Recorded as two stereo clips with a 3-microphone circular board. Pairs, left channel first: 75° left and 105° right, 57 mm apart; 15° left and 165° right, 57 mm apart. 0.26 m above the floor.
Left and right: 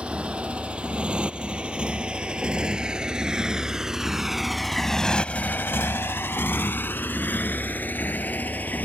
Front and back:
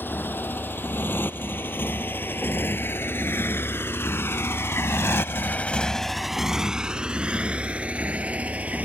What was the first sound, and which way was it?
A motorcycle, 35° right.